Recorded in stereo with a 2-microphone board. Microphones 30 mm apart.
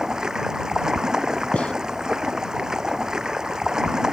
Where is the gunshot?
45° left (ahead or behind).